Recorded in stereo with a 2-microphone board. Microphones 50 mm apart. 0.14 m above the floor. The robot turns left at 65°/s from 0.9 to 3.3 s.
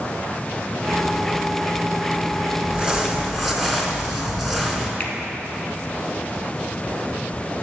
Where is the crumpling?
130° right, 0.9 m; by 4.9 s 175° right, 0.9 m.